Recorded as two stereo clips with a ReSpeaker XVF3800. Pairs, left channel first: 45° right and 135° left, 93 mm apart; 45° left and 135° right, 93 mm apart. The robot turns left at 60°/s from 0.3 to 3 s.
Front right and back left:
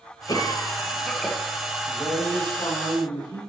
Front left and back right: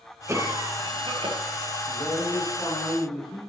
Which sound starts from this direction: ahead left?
A man speaking, at 1.9 s.